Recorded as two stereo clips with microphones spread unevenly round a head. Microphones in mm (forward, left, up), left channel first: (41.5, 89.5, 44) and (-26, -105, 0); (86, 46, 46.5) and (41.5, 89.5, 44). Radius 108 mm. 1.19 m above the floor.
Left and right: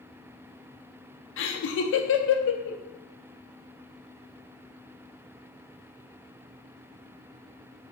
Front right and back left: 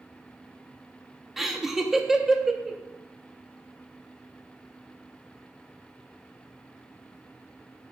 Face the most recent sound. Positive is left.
turn(degrees=50)